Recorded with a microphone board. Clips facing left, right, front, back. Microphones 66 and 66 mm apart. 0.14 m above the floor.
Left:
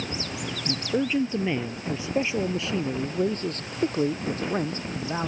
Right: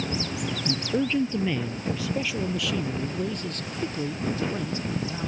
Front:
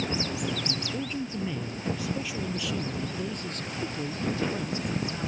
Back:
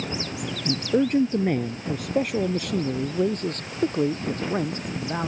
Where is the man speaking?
175° left; by 5.3 s 140° left.